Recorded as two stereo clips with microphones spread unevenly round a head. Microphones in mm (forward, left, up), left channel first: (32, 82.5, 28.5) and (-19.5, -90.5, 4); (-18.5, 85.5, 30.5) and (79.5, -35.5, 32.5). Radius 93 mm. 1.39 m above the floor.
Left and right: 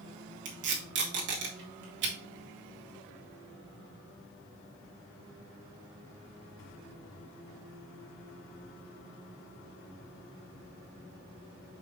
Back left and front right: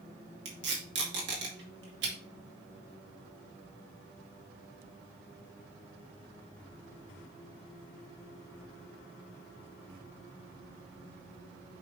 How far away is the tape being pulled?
About 2 m.